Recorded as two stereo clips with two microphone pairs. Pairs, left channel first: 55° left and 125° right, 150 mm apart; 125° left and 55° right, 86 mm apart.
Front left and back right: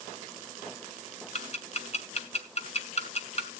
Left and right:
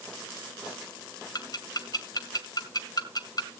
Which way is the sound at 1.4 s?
90° left.